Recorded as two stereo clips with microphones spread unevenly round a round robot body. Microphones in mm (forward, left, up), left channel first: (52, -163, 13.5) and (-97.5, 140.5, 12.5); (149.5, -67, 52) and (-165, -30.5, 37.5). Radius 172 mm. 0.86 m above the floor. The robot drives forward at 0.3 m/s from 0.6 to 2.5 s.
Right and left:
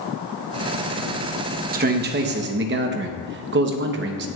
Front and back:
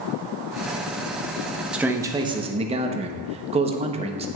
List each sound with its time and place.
1.7 s a man speaking: 95° left, 0.9 m; by 4.3 s 125° left, 0.9 m